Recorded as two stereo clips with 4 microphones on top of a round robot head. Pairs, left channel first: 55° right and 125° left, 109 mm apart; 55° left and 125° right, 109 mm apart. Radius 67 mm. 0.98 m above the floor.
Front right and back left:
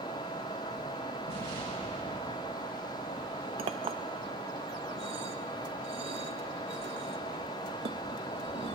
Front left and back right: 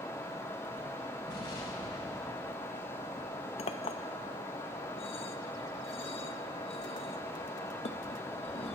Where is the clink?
90° left, 0.8 m.